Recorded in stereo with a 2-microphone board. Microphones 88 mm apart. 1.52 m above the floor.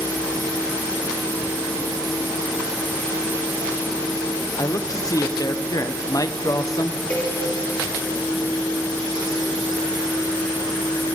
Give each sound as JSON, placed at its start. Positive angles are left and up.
{"t": 4.6, "sound": "a man speaking", "side_deg": 45, "distance_m": 0.7}
{"t": 7.1, "sound": "a cowbell", "side_deg": 20, "distance_m": 2.0}